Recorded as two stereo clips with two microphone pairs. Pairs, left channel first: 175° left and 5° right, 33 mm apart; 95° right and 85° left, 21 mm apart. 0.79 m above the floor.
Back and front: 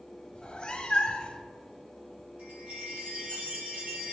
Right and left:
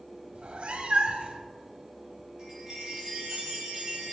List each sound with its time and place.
0.3 s a cat meowing: 115° left, 0.6 m
2.4 s a chime: 20° left, 2.5 m